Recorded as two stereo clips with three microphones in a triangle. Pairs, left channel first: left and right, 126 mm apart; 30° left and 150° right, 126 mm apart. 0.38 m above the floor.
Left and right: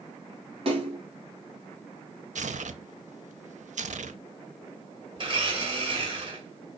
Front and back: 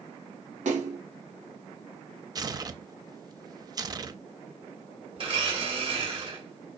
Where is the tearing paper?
90° right, 0.5 m.